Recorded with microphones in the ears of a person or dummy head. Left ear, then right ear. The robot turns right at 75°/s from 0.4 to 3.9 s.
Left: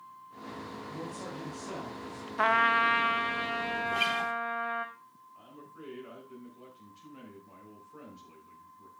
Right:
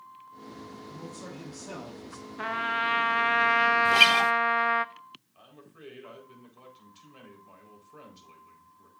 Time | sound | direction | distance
0.9 | a man speaking | 120° left | 3.5 m
2.4 | a trumpet | 140° left | 0.5 m
3.9 | a guitar | 50° right (ahead or behind) | 0.5 m
5.3 | a man speaking | 40° right (ahead or behind) | 4.5 m